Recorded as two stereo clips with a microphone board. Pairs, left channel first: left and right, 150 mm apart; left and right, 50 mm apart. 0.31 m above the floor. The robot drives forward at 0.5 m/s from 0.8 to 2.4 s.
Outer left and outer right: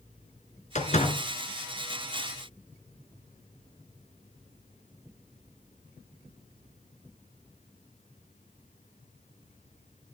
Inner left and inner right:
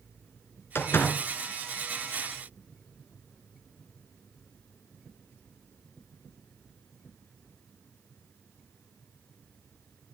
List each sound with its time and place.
0.8 s a door slam: 60° left (ahead or behind), 2.5 m; by 1.2 s 55° left (ahead or behind), 2.5 m